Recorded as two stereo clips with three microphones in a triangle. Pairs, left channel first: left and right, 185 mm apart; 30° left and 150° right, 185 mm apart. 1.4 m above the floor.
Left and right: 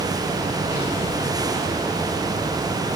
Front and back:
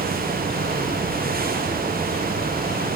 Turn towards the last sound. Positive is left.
No sound to turn to.